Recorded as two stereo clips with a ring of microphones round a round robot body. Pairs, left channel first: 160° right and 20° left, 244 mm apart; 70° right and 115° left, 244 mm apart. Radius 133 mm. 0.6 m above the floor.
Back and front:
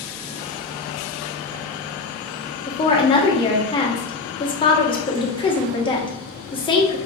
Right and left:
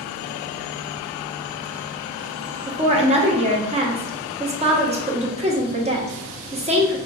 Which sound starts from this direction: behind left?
A woman speaking, at 2.7 s.